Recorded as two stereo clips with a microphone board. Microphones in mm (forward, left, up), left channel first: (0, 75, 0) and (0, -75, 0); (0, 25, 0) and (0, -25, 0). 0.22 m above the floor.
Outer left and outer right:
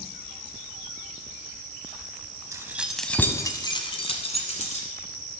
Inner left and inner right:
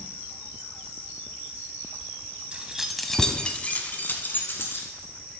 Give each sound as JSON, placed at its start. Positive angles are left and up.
{"t": 2.5, "sound": "keys jangling", "side_deg": -20, "distance_m": 0.8}